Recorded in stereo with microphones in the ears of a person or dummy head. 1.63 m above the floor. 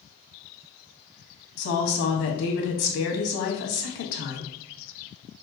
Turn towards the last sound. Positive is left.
turn(degrees=70)  # may be behind; listen again after turning